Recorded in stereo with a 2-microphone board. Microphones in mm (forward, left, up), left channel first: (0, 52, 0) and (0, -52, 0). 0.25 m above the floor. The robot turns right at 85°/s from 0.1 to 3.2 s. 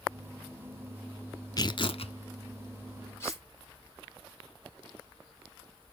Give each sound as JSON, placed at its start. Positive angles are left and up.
{"t": 1.6, "sound": "tearing paper", "azimuth_deg": 40, "distance_m": 0.9}
{"t": 3.2, "sound": "cutlery clinking", "side_deg": 25, "distance_m": 3.0}